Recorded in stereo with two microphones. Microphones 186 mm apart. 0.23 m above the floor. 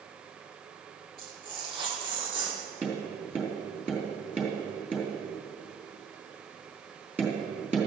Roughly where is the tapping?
Centre.